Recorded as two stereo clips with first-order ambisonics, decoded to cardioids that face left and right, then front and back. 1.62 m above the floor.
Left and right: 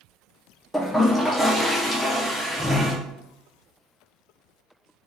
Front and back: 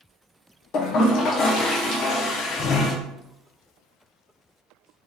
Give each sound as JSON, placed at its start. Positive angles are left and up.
{"t": 0.7, "sound": "a toilet flushing", "azimuth_deg": 0, "distance_m": 0.6}